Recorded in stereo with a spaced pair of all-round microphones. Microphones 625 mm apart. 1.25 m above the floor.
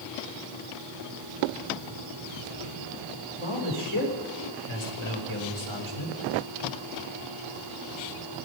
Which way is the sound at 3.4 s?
50° right (ahead or behind).